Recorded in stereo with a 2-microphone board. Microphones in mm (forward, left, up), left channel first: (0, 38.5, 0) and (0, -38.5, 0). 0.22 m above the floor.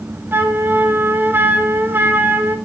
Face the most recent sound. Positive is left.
turn(degrees=-25)  # may be behind; listen again after turning